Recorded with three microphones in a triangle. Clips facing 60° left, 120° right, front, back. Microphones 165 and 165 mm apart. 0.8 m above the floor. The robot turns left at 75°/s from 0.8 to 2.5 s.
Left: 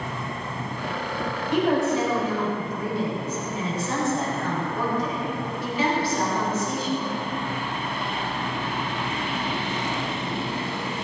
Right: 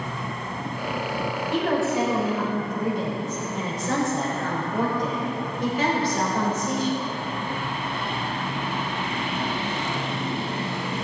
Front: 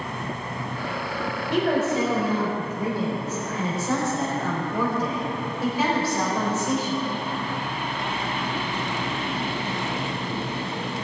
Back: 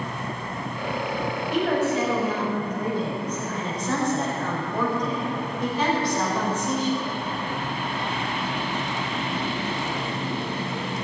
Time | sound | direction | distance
1.5 | a woman speaking | 10° right | 4 m